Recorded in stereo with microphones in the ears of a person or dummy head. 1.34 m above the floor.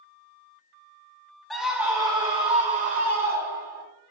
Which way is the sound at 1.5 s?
5° left (ahead or behind).